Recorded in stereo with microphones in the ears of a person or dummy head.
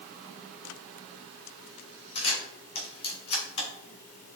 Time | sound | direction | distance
2.1 | a camera shutter | 30° left (ahead or behind) | 3 m